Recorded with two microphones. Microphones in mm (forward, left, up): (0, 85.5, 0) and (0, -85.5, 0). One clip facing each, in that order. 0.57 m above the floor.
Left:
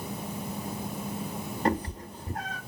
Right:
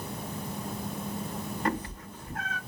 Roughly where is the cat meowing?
Left.